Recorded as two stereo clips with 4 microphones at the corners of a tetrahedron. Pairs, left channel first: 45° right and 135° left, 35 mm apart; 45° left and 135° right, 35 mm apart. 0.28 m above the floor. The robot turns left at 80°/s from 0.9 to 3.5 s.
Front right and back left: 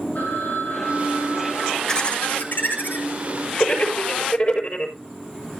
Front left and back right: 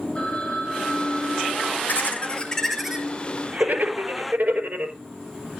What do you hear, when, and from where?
0.1 s a phone ringing: 10° right, 7 m; by 1.8 s 80° right, 7 m
1.9 s laughter: 25° left, 5.5 m; by 5.0 s 105° right, 5.5 m